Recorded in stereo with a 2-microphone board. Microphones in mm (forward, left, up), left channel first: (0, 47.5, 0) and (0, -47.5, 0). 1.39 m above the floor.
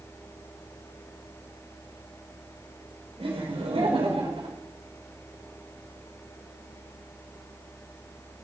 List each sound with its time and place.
3.2 s laughter: 85° right, 4.5 m